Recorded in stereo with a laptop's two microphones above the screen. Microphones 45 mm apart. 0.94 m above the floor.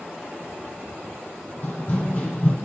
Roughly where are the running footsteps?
Left.